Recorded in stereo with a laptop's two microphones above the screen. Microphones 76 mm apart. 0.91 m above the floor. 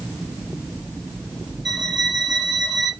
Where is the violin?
Centre (ahead or behind), 1.7 m.